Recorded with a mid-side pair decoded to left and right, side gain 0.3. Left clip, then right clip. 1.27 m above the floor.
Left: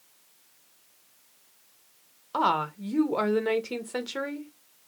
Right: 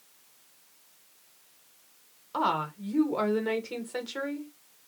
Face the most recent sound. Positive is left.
turn(degrees=50)